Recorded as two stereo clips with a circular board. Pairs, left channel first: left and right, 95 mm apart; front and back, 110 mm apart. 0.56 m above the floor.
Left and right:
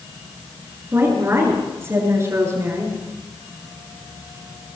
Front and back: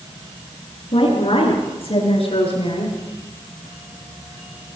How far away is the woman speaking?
About 9.5 m.